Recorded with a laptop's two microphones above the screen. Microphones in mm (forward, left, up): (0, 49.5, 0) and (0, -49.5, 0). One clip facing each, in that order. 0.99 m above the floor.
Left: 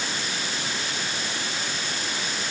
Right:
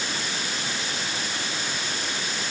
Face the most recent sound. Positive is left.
No sound to turn to.